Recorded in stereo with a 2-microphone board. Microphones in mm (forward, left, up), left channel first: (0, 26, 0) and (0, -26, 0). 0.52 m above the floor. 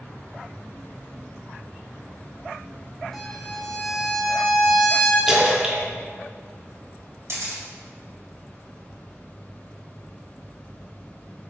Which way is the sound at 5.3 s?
15° right (ahead or behind).